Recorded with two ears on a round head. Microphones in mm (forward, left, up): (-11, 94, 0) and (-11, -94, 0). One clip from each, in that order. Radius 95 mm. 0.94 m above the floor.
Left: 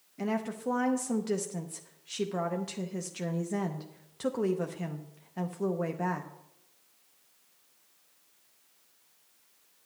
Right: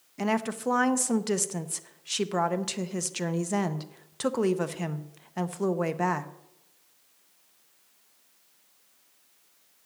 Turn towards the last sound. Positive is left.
turn(degrees=-30)  # may be behind; listen again after turning